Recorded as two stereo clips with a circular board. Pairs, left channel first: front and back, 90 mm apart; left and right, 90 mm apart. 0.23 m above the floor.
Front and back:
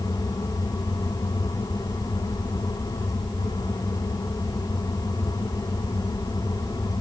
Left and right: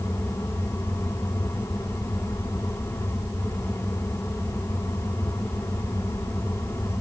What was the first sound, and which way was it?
Only background noise.